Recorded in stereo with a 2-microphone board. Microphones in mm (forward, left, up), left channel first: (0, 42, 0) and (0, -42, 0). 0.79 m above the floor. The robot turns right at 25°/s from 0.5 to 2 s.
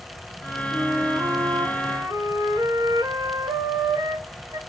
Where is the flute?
135° right, 0.8 m; by 4.6 s 105° right, 0.8 m.